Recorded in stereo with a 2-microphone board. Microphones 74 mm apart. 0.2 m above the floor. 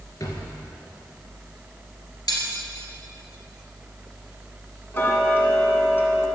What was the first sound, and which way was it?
A drawer, 45° left (ahead or behind).